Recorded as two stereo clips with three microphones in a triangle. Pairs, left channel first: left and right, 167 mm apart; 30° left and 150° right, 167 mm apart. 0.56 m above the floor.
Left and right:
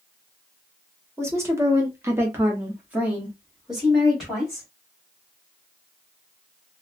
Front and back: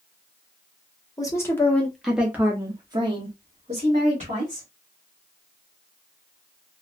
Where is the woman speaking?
25° right, 1.1 m; by 4.7 s straight behind, 1.7 m.